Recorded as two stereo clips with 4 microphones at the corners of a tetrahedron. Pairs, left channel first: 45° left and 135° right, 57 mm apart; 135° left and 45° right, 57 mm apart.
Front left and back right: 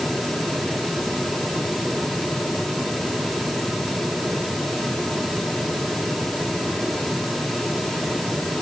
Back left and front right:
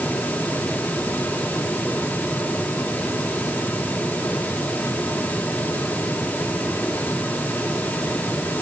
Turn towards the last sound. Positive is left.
No sound to turn to.